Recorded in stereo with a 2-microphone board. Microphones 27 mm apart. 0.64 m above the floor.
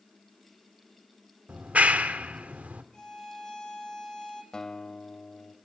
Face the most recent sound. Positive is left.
turn(degrees=25)  # may be behind; listen again after turning